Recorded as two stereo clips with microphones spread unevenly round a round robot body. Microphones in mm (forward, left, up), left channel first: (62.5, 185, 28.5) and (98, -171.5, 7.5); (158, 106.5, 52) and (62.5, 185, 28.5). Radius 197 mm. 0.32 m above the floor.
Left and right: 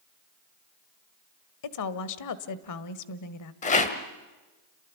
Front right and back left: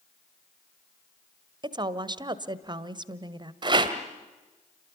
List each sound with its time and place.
1.6 s a woman speaking: 115° left, 1.5 m
3.6 s a rattle: 165° left, 1.6 m